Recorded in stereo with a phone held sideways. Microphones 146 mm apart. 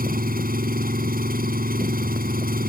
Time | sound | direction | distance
0.0 | an engine running | 80° right | ?